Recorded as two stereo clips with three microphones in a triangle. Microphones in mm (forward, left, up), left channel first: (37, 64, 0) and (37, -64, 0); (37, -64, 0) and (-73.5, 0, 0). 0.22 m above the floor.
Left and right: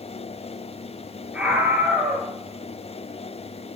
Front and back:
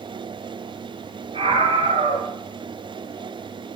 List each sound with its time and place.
1.3 s a scream: 170° right, 3 m